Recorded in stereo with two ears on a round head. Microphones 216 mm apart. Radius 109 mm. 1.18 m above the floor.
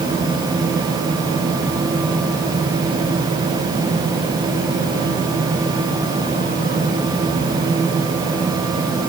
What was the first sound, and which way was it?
Only background noise.